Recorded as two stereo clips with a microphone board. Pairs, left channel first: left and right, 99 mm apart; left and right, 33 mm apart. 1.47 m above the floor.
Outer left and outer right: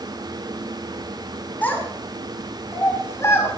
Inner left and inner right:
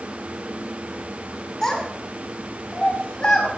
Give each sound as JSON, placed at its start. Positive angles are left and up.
{"t": 1.6, "sound": "a child speaking", "side_deg": 15, "distance_m": 6.0}